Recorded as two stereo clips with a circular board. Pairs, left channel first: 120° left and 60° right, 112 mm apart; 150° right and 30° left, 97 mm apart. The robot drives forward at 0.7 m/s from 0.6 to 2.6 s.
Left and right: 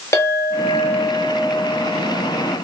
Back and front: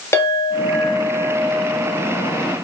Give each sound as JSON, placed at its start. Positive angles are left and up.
{"t": 0.1, "sound": "a clink", "azimuth_deg": 165, "distance_m": 1.1}